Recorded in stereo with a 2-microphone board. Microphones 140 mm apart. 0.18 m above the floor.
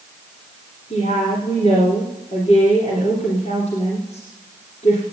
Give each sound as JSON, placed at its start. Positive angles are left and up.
{"t": 0.9, "sound": "a woman speaking", "side_deg": 55, "distance_m": 3.0}